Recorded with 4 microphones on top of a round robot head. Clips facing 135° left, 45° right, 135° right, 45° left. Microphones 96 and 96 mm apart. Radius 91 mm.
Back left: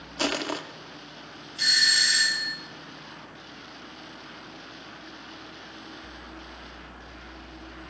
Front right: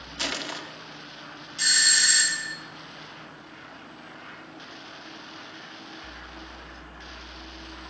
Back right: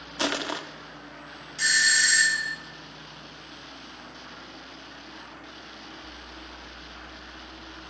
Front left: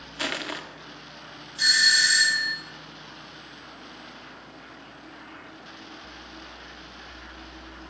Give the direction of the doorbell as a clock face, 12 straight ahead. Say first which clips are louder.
Front right 1 dB, even; 1 o'clock.